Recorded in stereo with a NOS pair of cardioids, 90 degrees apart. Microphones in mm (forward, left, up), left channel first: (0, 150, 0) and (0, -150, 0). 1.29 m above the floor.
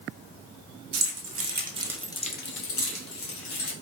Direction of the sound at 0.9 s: 60° right.